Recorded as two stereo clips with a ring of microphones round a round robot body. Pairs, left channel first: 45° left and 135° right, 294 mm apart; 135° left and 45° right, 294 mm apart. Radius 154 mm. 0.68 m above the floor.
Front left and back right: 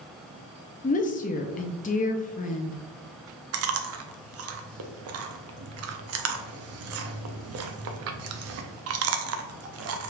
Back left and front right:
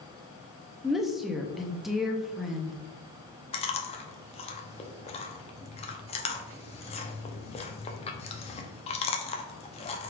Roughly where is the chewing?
Behind.